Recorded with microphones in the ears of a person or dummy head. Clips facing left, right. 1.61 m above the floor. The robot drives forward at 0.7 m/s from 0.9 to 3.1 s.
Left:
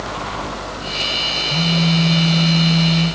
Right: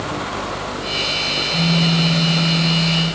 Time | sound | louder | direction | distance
1.5 | a phone buzzing | even | 80° left | 6.5 m